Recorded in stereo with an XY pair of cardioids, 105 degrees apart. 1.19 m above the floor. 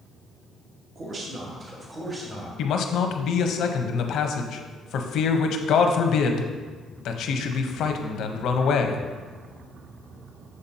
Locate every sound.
0.9 s a man speaking: 45° right, 1.1 m; by 2.5 s 20° right, 1.8 m
2.6 s a man speaking: 70° left, 0.8 m